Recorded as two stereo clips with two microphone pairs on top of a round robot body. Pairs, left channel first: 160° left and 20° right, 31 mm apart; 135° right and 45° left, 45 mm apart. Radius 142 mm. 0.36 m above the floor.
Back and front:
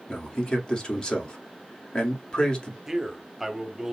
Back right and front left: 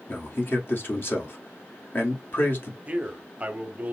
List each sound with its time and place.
0.1 s a man speaking: 145° right, 2.0 m
2.9 s a man speaking: 50° left, 1.4 m